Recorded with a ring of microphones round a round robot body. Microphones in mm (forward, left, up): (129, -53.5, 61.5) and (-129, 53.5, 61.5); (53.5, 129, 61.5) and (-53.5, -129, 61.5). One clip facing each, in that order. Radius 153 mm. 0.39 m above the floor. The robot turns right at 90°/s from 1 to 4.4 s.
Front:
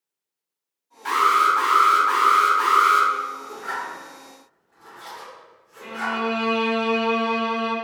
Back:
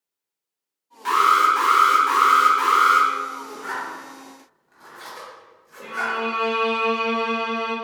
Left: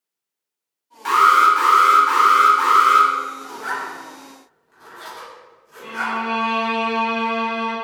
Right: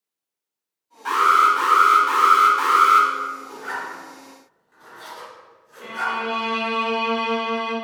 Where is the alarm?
90° left, 1.1 m; by 3.1 s 85° right, 1.1 m.